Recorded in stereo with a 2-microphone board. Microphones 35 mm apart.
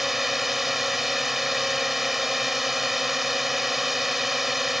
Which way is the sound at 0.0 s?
5° right (ahead or behind).